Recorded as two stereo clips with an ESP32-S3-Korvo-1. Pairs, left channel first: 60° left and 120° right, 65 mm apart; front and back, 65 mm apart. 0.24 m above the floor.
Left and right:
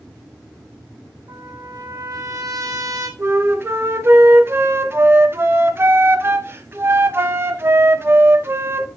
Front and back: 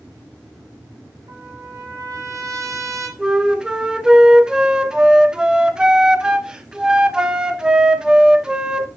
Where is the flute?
110° right, 1.1 m.